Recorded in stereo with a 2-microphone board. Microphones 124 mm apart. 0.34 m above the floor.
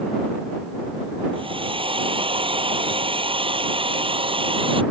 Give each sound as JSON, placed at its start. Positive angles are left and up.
{"t": 1.3, "sound": "a hair dryer", "side_deg": -45}